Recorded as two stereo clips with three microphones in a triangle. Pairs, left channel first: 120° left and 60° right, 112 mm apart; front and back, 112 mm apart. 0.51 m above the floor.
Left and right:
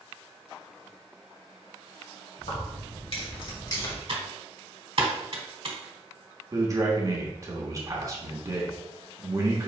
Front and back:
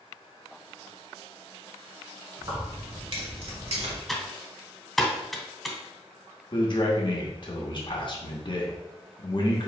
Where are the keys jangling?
135° left, 1.8 m; by 4.0 s 175° left, 1.0 m.